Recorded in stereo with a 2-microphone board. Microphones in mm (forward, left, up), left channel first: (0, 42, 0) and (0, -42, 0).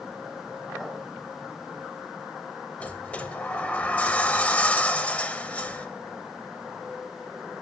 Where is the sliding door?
15° left (ahead or behind), 0.5 m.